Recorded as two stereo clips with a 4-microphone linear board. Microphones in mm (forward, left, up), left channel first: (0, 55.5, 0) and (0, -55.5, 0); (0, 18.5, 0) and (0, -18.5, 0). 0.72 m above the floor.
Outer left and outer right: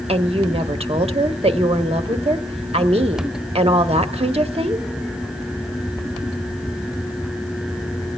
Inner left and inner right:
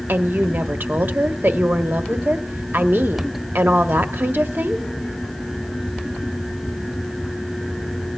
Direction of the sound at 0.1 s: 65° right (ahead or behind).